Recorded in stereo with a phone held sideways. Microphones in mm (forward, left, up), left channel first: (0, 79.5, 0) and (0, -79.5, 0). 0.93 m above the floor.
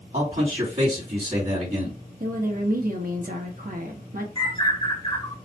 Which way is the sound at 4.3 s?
30° left (ahead or behind).